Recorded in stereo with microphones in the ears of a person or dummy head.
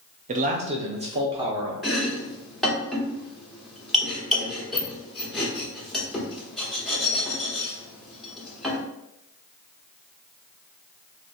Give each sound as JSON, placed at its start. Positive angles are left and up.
{"t": 0.3, "sound": "a man speaking", "side_deg": -40, "distance_m": 0.5}
{"t": 1.8, "sound": "chopping", "side_deg": 5, "distance_m": 1.0}